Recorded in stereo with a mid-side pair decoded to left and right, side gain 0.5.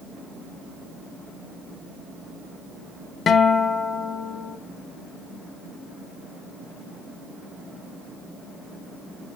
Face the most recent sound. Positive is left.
turn(degrees=50)